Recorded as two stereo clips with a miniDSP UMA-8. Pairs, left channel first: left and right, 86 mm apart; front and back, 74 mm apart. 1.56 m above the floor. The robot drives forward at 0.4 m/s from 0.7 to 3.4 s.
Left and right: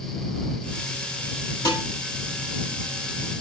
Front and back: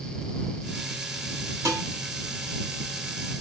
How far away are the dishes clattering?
About 6.5 m.